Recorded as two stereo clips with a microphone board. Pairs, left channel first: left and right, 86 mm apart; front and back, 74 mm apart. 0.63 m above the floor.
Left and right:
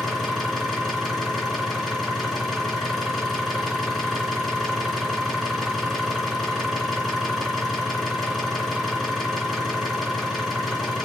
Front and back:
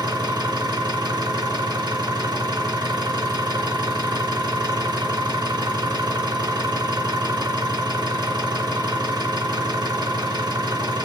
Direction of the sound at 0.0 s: 175° left.